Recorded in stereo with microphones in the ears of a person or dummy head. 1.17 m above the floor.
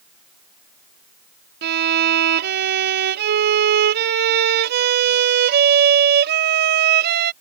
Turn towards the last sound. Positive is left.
turn(degrees=-55)  # may be behind; listen again after turning